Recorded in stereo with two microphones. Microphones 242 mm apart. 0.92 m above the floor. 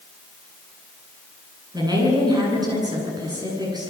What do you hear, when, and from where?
1.7 s a woman speaking: 15° right (ahead or behind), 9.5 m